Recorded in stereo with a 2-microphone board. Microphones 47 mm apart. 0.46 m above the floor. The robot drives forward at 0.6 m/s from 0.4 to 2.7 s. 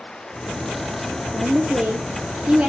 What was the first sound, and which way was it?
A woman speaking, 30° right (ahead or behind).